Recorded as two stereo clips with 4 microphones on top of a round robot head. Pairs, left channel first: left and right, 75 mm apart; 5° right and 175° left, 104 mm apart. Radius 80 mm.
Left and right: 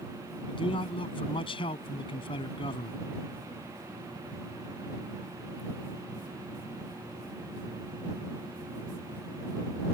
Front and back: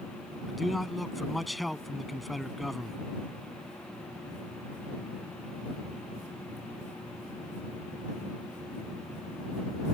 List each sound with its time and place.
0.5 s a man speaking: 85° left